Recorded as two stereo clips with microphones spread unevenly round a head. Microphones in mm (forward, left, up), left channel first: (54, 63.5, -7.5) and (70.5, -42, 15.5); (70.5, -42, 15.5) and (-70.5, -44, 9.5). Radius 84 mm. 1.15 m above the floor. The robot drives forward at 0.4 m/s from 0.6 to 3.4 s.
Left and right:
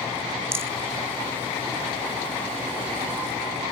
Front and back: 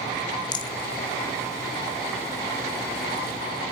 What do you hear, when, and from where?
0.5 s a rattle: 40° right, 1.0 m; by 0.7 s 45° right, 1.0 m